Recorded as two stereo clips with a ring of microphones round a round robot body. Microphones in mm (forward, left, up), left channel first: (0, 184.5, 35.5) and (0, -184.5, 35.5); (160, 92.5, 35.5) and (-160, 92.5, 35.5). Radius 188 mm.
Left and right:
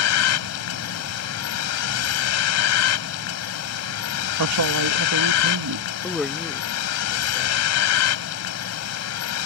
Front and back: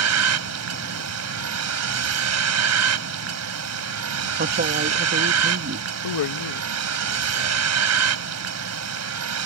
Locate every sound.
0.0 s a vehicle: 140° left
4.4 s a man speaking: 125° right
6.0 s a man speaking: straight ahead